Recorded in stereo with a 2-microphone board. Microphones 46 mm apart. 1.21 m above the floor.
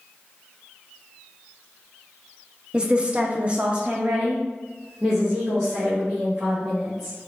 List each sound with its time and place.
2.7 s a woman speaking: 20° right (ahead or behind), 0.6 m; by 7.2 s 5° right (ahead or behind), 2 m